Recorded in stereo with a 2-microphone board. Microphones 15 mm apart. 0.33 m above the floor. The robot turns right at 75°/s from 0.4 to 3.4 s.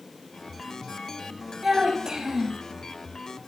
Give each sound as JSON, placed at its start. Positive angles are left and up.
{"t": 1.6, "sound": "a child speaking", "azimuth_deg": -160, "distance_m": 1.5}